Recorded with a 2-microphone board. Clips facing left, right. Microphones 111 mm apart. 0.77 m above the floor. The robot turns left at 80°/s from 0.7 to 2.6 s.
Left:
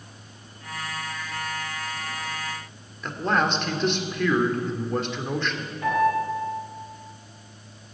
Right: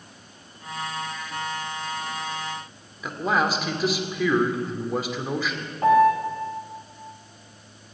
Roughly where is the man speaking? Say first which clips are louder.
Even; centre.